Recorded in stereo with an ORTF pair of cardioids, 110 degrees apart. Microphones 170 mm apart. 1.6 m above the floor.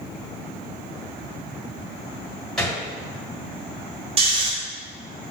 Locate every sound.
2.6 s a gunshot: 5° left, 1.7 m
4.2 s snoring: 35° right, 1.5 m